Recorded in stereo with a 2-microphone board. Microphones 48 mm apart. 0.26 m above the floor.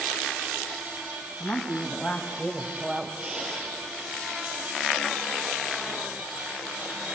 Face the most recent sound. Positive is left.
turn(degrees=-20)  # may be behind; listen again after turning